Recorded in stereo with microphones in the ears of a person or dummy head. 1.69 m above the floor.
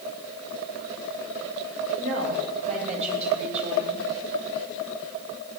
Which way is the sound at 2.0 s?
40° right (ahead or behind).